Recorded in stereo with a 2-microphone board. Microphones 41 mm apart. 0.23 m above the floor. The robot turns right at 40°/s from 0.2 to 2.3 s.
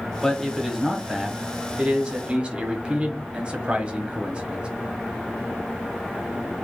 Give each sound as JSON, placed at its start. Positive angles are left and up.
{"t": 0.2, "sound": "a man speaking", "side_deg": 10, "distance_m": 1.0}